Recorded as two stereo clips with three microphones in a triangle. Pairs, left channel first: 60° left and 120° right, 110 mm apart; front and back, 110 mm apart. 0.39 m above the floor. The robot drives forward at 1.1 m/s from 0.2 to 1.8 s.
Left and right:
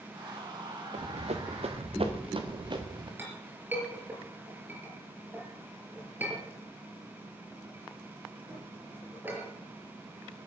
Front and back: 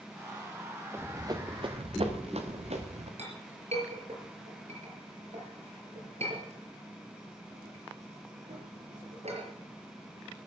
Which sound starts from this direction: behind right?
Running footsteps, at 0.9 s.